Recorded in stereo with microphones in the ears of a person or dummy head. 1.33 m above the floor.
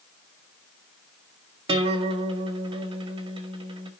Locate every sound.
1.7 s a guitar: 25° right (ahead or behind), 1.7 m